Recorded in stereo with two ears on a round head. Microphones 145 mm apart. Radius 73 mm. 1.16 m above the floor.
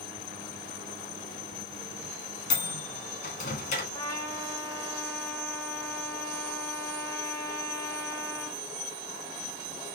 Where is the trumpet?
20° left (ahead or behind), 1.2 m.